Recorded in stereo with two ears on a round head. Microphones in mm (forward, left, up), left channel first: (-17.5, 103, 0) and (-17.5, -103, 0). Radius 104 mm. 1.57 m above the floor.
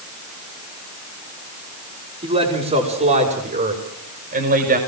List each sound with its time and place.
2.2 s a man speaking: 30° right (ahead or behind), 5 m; by 4.8 s 40° right (ahead or behind), 5.5 m